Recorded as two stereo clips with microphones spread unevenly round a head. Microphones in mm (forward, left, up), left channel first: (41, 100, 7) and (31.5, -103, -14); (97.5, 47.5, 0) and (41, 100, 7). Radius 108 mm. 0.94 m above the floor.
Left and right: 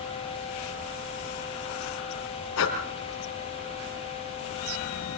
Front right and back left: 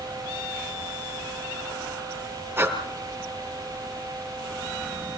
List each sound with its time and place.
2.6 s breathing: 75° left, 6 m